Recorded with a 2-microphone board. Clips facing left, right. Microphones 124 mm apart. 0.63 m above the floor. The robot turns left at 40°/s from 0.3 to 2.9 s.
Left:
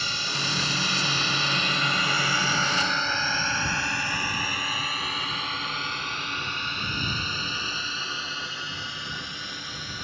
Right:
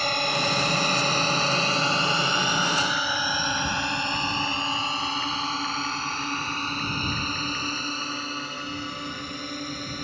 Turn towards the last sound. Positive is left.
turn(degrees=-45)  # may be behind; listen again after turning